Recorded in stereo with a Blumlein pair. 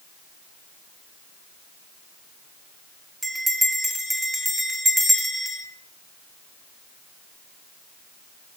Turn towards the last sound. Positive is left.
turn(degrees=-5)